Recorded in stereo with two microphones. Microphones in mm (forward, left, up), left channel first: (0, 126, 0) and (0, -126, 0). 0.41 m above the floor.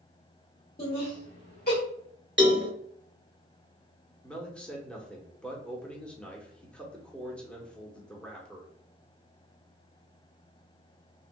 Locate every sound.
0.8 s laughter: 40° left (ahead or behind), 1.3 m
2.4 s a cowbell: 50° right (ahead or behind), 0.6 m
4.2 s a man speaking: 5° left (ahead or behind), 0.8 m